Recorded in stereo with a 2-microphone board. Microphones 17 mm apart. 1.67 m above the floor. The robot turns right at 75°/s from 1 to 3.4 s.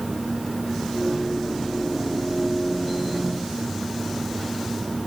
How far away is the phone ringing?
No phone ringing in this recording.